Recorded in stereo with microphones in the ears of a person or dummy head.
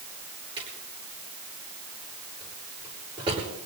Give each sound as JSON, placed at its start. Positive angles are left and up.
{"t": 0.6, "sound": "a drawer", "side_deg": -30, "distance_m": 9.0}